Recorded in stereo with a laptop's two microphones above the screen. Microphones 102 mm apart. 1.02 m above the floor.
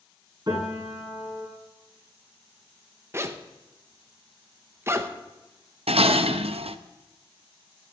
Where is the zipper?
25° right (ahead or behind), 0.7 m.